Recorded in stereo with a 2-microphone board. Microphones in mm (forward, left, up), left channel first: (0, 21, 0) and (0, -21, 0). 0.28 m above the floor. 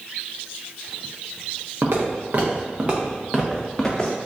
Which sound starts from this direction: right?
Footsteps, at 1.8 s.